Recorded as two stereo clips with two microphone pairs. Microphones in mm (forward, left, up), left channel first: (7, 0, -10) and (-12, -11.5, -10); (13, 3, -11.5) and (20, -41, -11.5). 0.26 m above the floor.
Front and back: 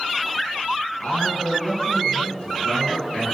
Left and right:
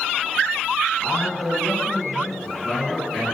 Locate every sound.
1.0 s a man speaking: 15° left, 3 m